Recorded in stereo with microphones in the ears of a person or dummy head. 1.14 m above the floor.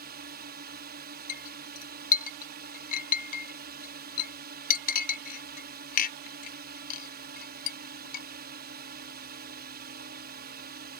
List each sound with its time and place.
0.0 s a drone: 45° right (ahead or behind)
1.3 s a clink: 50° left (ahead or behind)